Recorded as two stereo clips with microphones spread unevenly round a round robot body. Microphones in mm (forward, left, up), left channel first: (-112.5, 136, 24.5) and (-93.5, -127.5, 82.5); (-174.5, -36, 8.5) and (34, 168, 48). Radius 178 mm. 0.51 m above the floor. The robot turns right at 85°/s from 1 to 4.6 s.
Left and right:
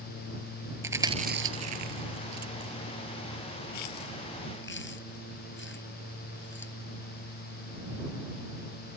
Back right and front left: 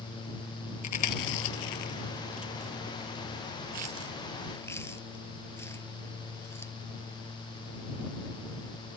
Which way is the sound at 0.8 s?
165° right.